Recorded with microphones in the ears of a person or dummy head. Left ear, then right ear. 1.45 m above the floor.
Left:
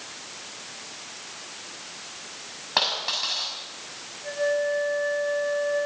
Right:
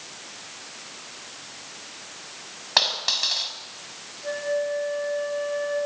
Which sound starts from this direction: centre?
A dropped coin, at 2.8 s.